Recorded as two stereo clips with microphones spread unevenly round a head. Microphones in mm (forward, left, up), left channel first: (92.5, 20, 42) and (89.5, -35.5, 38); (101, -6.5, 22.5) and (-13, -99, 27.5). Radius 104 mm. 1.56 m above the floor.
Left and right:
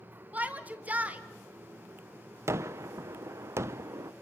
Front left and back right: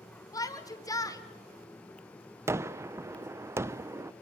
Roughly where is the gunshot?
Right.